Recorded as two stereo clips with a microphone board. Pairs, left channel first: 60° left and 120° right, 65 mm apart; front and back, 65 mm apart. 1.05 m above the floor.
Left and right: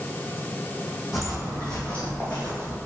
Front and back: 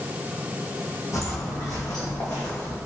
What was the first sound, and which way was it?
Footsteps, 30° right.